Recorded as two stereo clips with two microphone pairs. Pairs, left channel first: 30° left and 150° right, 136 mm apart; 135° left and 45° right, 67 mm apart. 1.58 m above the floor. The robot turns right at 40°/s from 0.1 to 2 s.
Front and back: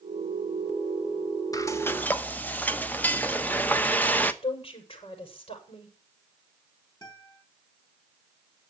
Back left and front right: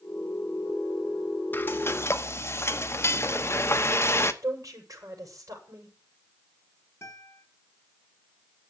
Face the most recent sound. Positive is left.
turn(degrees=85)